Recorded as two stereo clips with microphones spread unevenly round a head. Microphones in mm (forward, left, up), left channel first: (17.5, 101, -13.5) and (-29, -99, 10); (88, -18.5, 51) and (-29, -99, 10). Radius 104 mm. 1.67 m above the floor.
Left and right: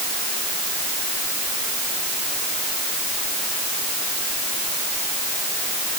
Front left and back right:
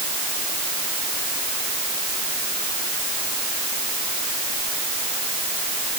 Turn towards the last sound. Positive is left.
No sound to turn to.